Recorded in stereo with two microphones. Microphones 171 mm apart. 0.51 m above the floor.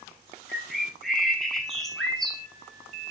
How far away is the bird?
About 2.0 m.